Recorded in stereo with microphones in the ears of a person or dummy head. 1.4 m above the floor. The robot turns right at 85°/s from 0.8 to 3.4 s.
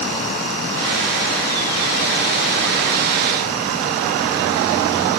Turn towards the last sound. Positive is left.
No sound to turn to.